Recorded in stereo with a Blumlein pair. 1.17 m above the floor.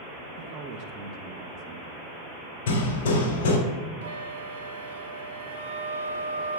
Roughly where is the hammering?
Ahead left.